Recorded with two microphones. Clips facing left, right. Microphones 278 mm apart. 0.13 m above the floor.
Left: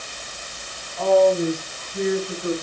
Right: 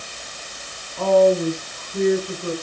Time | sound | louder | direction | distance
1.0 | a woman speaking | right 1 dB | 50° right (ahead or behind) | 9 m